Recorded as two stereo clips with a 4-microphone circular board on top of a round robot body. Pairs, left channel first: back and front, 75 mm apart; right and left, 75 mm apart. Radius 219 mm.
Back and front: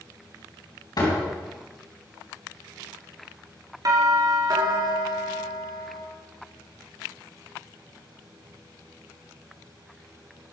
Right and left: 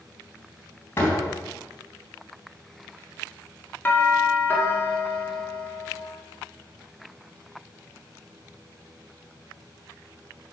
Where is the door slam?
150° right, 4 m.